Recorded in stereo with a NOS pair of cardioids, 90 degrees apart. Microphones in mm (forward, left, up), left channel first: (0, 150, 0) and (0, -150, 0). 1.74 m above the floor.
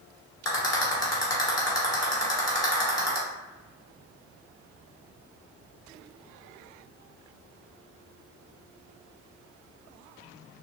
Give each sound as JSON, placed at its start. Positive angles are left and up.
{"t": 0.5, "sound": "a rattle", "azimuth_deg": 15, "distance_m": 1.2}